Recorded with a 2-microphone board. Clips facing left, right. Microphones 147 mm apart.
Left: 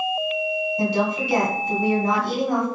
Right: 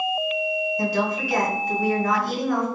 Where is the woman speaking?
25° left (ahead or behind), 1.8 m.